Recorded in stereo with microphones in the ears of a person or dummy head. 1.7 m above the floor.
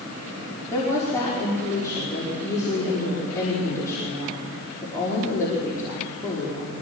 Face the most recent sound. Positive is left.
turn(degrees=20)  # may be behind; listen again after turning